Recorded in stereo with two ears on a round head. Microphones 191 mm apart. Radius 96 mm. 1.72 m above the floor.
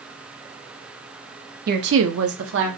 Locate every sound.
1.7 s a woman speaking: 45° right (ahead or behind), 0.6 m; by 2.7 s 55° right (ahead or behind), 0.8 m